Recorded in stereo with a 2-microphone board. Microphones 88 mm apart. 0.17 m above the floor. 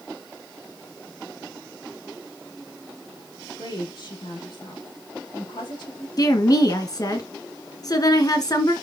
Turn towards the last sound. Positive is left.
turn(degrees=45)  # may be behind; listen again after turning